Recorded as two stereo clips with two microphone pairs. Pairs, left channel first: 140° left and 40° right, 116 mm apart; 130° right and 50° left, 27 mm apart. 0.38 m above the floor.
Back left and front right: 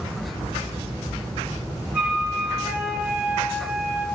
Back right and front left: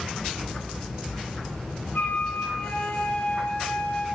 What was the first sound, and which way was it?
A flute, 125° right.